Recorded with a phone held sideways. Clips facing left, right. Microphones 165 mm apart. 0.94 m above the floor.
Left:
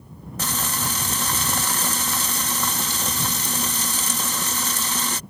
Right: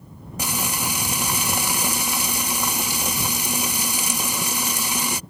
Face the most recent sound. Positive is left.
turn(degrees=-10)  # may be behind; listen again after turning